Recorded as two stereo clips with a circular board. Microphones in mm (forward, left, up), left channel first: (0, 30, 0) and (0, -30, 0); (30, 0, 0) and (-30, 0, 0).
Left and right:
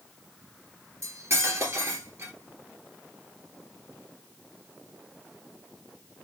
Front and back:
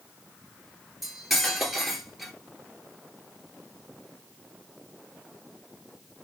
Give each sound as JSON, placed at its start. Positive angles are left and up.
{"t": 1.0, "sound": "cutlery clinking", "azimuth_deg": -90, "distance_m": 1.5}